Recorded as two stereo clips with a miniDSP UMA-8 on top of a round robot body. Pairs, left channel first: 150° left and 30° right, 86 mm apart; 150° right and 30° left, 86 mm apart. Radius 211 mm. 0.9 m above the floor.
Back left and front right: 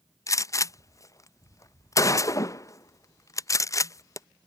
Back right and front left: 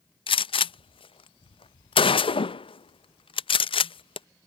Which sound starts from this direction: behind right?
A gunshot, at 0.3 s.